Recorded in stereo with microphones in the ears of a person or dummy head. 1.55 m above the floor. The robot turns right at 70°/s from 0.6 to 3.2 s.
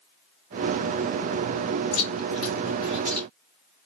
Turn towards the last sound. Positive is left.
turn(degrees=5)  # may be behind; listen again after turning